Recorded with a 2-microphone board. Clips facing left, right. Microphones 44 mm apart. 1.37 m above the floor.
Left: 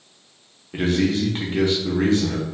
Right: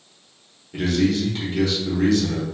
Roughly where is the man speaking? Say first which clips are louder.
Even; left.